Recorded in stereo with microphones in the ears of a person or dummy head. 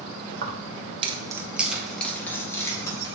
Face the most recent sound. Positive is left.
turn(degrees=20)  # may be behind; listen again after turning